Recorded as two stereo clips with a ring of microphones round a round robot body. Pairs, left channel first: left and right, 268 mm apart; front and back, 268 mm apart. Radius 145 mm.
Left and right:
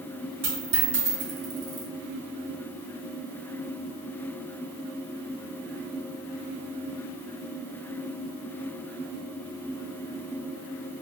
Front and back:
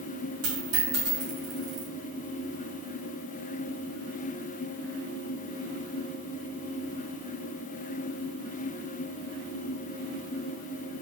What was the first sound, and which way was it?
A dropped coin, 135° right.